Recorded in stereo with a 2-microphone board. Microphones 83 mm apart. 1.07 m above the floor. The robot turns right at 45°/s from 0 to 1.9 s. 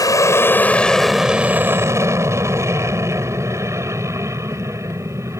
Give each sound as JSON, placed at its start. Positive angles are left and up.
{"t": 0.0, "sound": "an aircraft", "side_deg": 50}